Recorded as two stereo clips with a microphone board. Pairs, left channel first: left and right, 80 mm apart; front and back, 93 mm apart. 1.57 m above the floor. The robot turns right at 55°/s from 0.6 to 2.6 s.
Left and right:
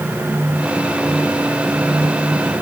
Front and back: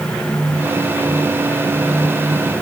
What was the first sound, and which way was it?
Only background noise.